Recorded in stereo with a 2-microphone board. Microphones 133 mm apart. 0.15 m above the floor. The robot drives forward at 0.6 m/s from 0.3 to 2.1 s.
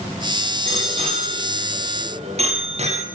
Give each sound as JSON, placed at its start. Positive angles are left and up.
{"t": 0.7, "sound": "a bicycle bell", "side_deg": -45, "distance_m": 3.5}